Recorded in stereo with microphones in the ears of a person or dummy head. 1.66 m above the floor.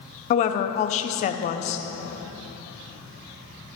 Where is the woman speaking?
35° left (ahead or behind), 0.8 m.